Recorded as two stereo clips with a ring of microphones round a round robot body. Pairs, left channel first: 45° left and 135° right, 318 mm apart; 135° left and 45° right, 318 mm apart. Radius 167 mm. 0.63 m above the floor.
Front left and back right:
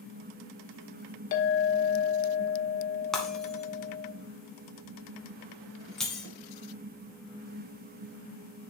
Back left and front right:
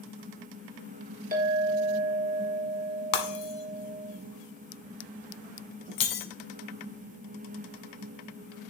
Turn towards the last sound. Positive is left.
turn(degrees=135)